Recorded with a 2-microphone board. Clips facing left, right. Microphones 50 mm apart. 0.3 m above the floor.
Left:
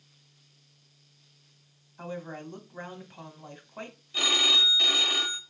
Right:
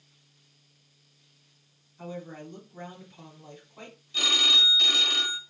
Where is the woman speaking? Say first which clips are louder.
Left 1 dB; 55° left (ahead or behind), 1.9 m.